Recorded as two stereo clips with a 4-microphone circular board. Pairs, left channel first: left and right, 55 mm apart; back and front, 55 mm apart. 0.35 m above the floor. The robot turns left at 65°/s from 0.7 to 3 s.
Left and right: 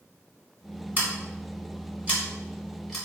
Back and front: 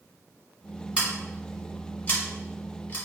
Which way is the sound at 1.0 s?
55° right.